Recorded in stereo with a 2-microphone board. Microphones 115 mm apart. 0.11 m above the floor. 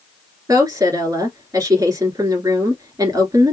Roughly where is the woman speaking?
Right.